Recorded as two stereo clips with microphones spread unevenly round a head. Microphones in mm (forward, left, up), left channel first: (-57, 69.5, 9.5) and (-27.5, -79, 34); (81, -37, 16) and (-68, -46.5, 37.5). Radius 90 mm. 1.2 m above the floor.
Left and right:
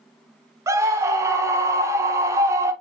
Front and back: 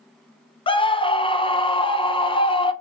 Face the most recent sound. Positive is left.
turn(degrees=-5)